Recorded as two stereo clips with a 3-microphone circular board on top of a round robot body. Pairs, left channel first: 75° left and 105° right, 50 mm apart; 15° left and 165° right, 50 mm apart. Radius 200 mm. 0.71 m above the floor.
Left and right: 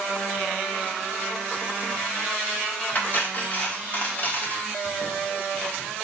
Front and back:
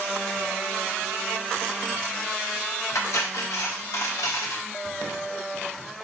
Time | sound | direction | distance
3.0 | cutlery clinking | 20° left | 1.3 m